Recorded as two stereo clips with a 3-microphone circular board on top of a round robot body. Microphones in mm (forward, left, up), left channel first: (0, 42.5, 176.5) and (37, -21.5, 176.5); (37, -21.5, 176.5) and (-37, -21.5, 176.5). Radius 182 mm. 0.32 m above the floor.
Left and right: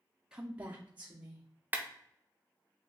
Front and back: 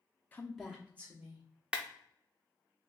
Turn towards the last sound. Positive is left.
turn(degrees=-110)